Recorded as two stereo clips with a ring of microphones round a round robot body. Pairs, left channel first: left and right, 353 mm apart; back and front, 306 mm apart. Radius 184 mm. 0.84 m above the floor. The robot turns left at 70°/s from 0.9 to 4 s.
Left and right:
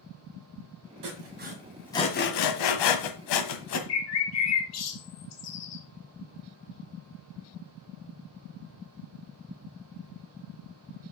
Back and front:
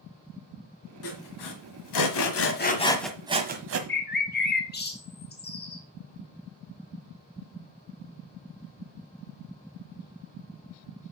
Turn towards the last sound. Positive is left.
turn(degrees=125)